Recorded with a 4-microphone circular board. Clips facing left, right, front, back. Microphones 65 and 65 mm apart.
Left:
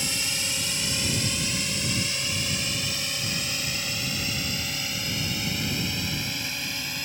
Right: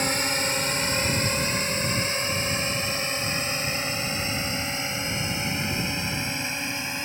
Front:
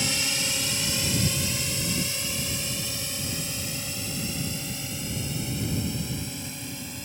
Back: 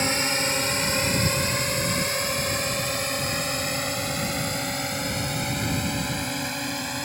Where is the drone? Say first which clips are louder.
Right 6 dB, back 6 dB; 130° right; by 7.0 s 155° right.